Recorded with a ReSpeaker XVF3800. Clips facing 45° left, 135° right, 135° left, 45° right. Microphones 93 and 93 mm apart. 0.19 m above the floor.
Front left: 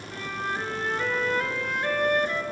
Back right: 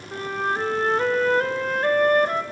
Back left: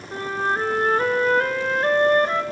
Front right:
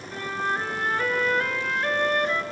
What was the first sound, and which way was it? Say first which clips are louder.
A flute: back right 6 dB, back left 4 dB; 175° right.